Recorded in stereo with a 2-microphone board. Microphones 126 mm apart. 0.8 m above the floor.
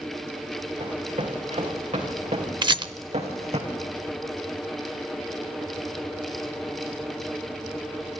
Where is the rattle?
40° right (ahead or behind), 0.6 m.